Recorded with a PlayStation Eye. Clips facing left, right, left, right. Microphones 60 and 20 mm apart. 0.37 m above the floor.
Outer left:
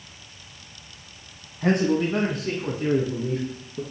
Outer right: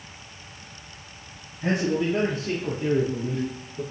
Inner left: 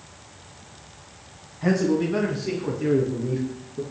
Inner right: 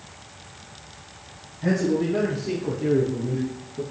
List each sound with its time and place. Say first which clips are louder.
1.6 s a man speaking: outer left 3 dB, inner left 1 dB; 60° left (ahead or behind), 2.5 m; by 3.8 s 65° left (ahead or behind), 3.5 m